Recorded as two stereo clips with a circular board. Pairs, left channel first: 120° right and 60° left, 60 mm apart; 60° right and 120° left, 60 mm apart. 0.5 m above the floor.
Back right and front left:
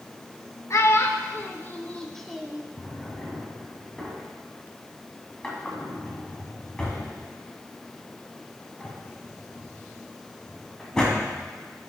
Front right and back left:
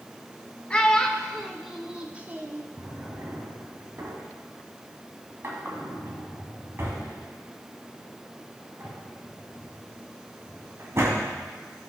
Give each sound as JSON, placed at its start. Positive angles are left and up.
{"t": 0.7, "sound": "a child speaking", "azimuth_deg": -130, "distance_m": 1.1}
{"t": 2.8, "sound": "a drawer", "azimuth_deg": 165, "distance_m": 1.8}